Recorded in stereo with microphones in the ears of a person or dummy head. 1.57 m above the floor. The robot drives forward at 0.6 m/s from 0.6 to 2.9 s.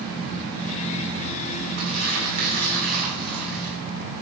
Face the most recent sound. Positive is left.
turn(degrees=-50)  # may be behind; listen again after turning